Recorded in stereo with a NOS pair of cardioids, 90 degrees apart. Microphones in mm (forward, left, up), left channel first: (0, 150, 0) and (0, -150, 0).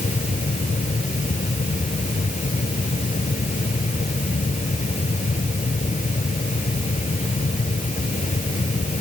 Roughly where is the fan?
Ahead left.